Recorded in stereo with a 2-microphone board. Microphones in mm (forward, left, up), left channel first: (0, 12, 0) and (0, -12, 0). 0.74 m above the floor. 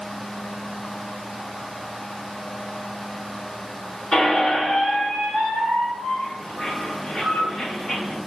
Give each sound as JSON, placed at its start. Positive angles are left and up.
{"t": 4.1, "sound": "a squeak", "side_deg": 30, "distance_m": 1.1}